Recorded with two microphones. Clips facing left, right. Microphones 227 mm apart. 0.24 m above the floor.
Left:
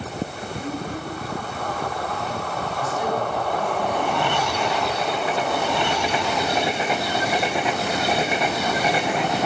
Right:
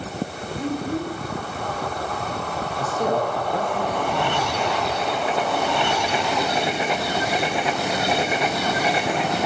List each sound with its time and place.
0.6 s a child speaking: 70° right (ahead or behind), 4.5 m
2.8 s a man speaking: 45° right (ahead or behind), 5 m